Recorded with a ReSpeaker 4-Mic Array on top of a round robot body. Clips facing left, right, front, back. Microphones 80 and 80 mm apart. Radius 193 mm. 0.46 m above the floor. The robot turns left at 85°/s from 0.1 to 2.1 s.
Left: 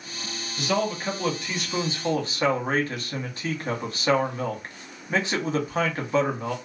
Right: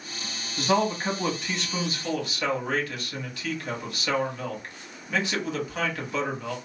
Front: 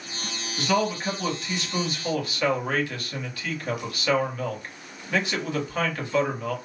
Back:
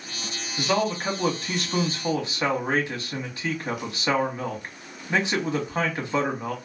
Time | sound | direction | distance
0.6 | a man speaking | 105° right | 1.4 m